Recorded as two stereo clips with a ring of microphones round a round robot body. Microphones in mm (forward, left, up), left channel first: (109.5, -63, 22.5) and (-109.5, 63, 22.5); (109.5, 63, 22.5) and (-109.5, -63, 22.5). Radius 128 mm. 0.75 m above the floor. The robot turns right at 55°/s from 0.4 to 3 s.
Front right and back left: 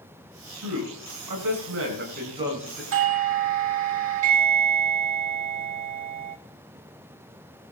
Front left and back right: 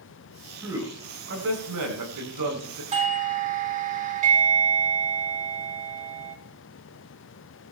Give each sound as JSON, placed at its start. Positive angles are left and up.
{"t": 0.6, "sound": "a man speaking", "azimuth_deg": 125, "distance_m": 9.5}
{"t": 2.9, "sound": "a doorbell", "azimuth_deg": 150, "distance_m": 1.6}